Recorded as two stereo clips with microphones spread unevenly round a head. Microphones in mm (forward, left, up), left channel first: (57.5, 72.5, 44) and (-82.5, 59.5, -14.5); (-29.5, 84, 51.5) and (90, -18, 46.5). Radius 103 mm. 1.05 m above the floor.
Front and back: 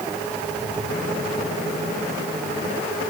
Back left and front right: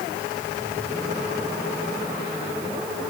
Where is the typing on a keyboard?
I don't hear typing on a keyboard.